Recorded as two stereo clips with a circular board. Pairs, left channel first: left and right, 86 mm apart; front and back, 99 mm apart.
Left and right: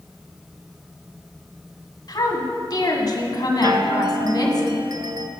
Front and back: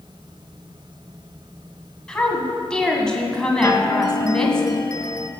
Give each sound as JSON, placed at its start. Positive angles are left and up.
{"t": 2.1, "sound": "a woman speaking", "azimuth_deg": 80, "distance_m": 1.8}
{"t": 3.6, "sound": "a chime", "azimuth_deg": -50, "distance_m": 0.7}